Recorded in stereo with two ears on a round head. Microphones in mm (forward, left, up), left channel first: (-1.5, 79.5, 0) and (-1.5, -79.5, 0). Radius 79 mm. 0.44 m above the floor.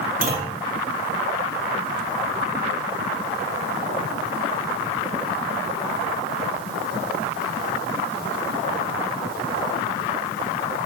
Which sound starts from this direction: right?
A clunk, at 0.2 s.